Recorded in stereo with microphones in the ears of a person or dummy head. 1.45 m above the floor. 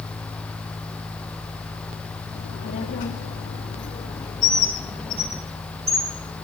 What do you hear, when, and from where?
2.4 s a child speaking: 45° left (ahead or behind), 2.0 m; by 5.4 s 10° right (ahead or behind), 1.1 m
4.4 s a bird: 30° right (ahead or behind), 2.5 m